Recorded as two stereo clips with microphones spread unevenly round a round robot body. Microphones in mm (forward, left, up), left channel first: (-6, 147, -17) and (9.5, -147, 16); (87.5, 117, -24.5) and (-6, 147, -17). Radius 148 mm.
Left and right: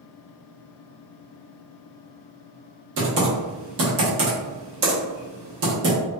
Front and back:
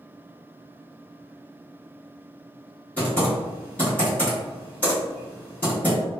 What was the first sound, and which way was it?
Typing on a keyboard, 85° right.